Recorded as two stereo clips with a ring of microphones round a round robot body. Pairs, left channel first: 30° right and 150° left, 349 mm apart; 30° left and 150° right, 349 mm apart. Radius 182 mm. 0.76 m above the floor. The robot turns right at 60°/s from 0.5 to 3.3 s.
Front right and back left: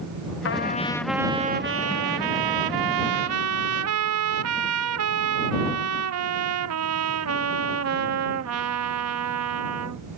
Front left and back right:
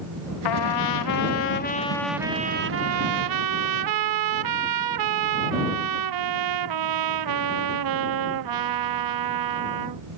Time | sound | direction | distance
0.5 | a trumpet | 25° left | ?